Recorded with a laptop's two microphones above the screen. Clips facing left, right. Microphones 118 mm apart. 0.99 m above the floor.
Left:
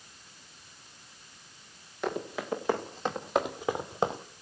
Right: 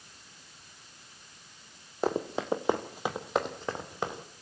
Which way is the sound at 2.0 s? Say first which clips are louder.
Right 4 dB; 35° right (ahead or behind).